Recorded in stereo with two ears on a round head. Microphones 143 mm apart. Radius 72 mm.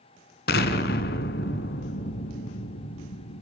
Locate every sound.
0.5 s an explosion: 65° left (ahead or behind), 2.5 m